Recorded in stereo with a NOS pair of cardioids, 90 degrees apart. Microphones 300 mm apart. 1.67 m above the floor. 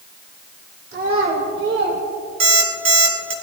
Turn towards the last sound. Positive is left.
turn(degrees=-65)